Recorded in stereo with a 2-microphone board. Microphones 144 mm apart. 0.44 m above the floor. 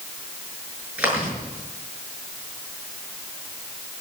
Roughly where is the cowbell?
No cowbell in this recording.